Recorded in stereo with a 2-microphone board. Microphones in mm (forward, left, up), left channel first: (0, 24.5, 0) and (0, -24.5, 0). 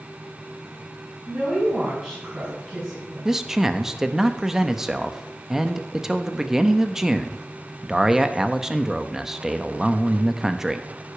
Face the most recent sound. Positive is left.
turn(degrees=-10)  # may be behind; listen again after turning